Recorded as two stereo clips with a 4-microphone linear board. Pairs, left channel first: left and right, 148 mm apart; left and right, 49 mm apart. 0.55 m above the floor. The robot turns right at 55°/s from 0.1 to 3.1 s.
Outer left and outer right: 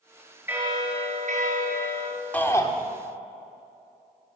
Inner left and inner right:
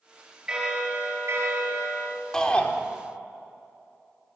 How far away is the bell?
About 3.5 m.